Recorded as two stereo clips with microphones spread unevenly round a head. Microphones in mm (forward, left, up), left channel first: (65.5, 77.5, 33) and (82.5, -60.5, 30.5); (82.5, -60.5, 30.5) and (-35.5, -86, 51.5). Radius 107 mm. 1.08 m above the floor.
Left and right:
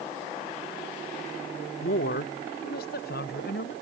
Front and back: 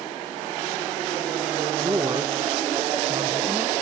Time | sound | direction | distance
1.8 | a woman speaking | 120° left | ?